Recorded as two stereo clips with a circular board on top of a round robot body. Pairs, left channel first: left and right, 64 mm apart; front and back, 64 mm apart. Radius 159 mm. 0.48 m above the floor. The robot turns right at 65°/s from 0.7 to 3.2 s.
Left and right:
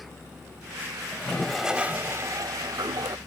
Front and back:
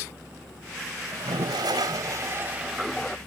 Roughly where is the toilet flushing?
Behind left.